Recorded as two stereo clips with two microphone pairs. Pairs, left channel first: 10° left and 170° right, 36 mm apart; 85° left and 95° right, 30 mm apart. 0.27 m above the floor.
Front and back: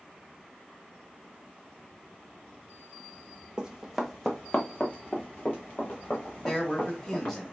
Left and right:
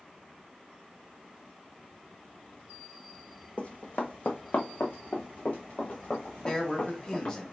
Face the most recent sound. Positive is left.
turn(degrees=85)